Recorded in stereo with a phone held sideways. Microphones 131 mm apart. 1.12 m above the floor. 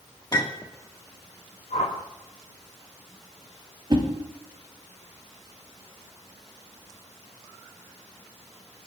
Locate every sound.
0.3 s a clink: 30° left (ahead or behind), 1.7 m
1.7 s a whoosh: 80° left, 4.5 m
3.9 s a whoosh: 40° right (ahead or behind), 2.5 m